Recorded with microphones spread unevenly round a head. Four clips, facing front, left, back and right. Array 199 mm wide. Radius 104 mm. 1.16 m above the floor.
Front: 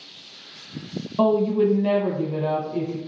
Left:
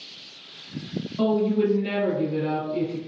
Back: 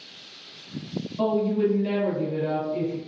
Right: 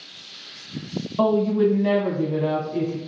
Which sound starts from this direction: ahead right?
A woman speaking, at 1.2 s.